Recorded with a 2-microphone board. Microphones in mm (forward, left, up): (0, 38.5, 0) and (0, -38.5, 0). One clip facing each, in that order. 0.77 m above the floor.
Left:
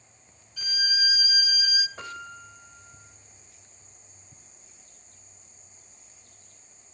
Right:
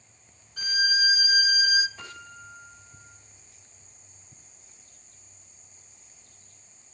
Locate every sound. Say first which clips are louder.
0.6 s a violin: right 5 dB; 40° right (ahead or behind), 0.8 m
2.0 s a piano: left 4 dB; 60° left (ahead or behind), 1.7 m